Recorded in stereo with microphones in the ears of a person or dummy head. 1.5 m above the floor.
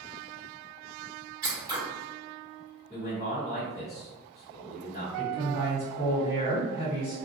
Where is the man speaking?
35° left (ahead or behind), 1.4 m.